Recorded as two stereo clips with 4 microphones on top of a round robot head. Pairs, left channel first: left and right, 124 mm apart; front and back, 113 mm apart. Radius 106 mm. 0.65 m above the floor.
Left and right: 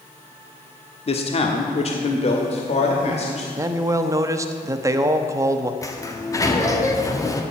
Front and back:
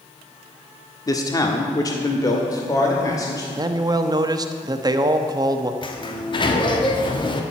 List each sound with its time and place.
1.1 s a man speaking: 55° left, 1.2 m; by 3.5 s 60° left, 2.5 m
3.6 s a man speaking: 145° right, 0.8 m
5.8 s a sliding door: 35° left, 1.7 m